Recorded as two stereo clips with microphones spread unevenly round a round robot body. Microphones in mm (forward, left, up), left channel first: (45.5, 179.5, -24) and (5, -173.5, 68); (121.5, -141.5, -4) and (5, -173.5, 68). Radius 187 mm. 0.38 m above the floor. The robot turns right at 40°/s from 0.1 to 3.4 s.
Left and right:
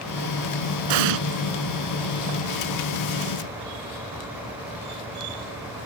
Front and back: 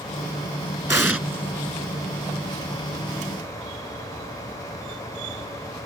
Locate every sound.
0.9 s an explosion: 95° right; by 1.2 s 85° right